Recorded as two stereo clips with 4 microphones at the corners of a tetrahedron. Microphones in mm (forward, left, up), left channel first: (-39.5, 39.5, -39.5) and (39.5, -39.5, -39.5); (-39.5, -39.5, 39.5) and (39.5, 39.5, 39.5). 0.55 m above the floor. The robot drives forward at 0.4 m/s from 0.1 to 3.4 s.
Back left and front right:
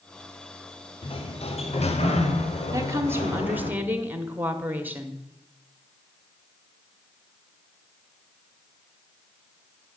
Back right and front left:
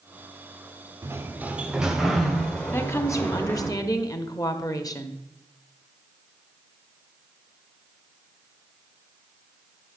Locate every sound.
1.0 s a sliding door: 110° left, 0.8 m; by 3.7 s 150° left, 1.4 m
2.7 s a woman speaking: 80° right, 1.0 m; by 5.2 s 105° right, 1.0 m